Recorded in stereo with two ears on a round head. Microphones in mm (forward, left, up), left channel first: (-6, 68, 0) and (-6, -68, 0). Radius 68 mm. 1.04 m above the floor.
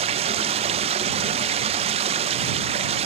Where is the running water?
40° right (ahead or behind).